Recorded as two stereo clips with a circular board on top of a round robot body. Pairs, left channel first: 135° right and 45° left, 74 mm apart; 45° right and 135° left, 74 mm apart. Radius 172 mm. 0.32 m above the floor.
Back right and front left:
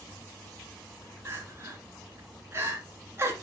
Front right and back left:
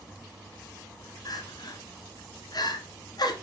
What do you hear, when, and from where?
1.2 s crying: 10° right, 1.8 m